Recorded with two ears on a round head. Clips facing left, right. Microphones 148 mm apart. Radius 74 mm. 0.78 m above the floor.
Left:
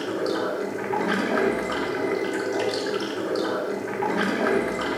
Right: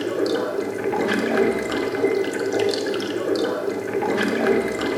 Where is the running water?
40° right (ahead or behind), 0.8 m.